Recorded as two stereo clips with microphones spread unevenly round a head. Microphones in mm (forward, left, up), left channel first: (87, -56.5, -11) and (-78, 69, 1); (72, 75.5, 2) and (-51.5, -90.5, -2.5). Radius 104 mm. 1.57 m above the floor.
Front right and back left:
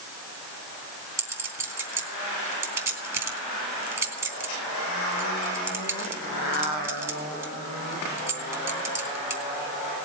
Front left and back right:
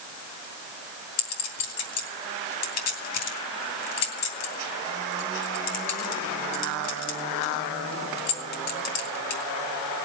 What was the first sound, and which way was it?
A clink, 65° left.